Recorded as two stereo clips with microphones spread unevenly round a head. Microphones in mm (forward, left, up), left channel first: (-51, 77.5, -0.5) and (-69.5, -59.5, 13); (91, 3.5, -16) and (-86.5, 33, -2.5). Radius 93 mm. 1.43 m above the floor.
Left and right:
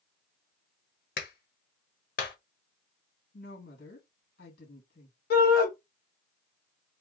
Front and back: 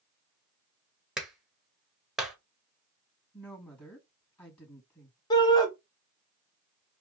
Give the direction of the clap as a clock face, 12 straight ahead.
9 o'clock.